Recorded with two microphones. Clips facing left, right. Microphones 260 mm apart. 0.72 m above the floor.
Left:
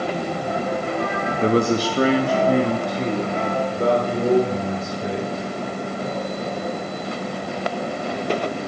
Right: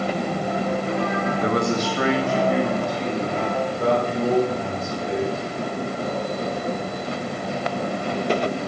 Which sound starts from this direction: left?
A man speaking, at 1.4 s.